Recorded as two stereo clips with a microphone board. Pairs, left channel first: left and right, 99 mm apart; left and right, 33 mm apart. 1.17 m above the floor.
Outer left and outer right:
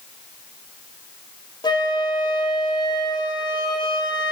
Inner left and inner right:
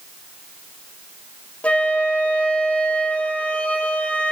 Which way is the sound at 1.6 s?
45° left (ahead or behind).